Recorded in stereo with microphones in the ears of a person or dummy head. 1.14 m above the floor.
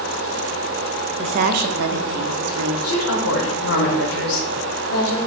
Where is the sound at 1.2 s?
30° right (ahead or behind), 0.7 m; by 2.7 s 90° right, 1.4 m.